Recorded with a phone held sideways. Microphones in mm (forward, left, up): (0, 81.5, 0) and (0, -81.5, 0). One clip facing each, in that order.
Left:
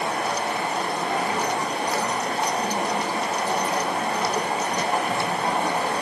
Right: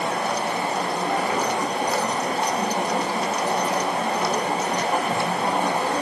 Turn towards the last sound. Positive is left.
turn(degrees=-35)  # may be behind; listen again after turning